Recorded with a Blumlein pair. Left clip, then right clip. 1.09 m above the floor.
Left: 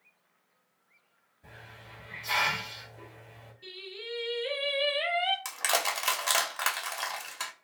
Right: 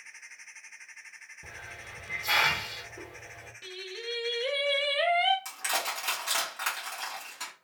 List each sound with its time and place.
1.4 s a hiss: 35° right, 0.8 m
3.6 s singing: 50° right, 1.1 m
5.5 s crushing: 25° left, 0.8 m